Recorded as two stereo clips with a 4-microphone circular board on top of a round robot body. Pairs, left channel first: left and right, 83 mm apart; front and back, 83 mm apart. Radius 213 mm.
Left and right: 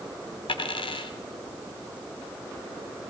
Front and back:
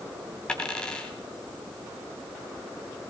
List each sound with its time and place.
0.5 s a dropped coin: 80° left, 1.9 m